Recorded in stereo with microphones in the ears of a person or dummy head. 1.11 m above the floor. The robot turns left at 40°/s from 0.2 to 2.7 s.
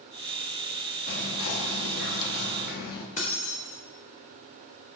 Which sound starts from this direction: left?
Keys jangling, at 3.2 s.